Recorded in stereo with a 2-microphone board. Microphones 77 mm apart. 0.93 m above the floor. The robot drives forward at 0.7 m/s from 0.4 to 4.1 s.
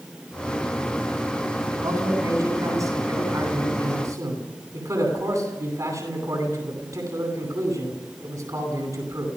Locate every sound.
1.7 s a man speaking: 55° right (ahead or behind), 9.5 m; by 9.3 s 45° right (ahead or behind), 11 m